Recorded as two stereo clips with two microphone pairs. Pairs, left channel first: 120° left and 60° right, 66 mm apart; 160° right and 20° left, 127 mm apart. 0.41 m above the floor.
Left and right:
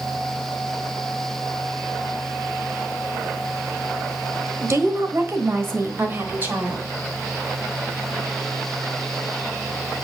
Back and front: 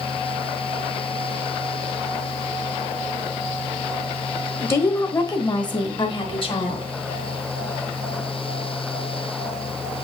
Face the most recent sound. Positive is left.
turn(degrees=-120)